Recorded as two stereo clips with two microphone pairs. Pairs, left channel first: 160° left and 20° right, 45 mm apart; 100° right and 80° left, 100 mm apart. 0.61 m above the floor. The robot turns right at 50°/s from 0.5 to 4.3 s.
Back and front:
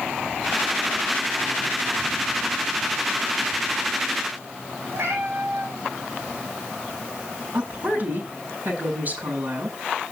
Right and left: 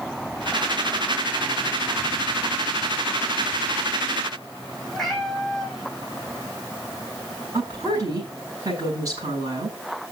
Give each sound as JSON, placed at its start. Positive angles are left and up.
{"t": 4.9, "sound": "a cat meowing", "azimuth_deg": -10, "distance_m": 3.0}
{"t": 7.5, "sound": "a woman speaking", "azimuth_deg": 20, "distance_m": 7.5}